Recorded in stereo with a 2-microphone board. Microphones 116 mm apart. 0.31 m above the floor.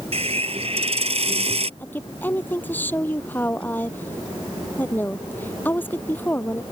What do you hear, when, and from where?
0.1 s a hiss: 65° right (ahead or behind)
1.8 s a woman speaking: 15° left (ahead or behind)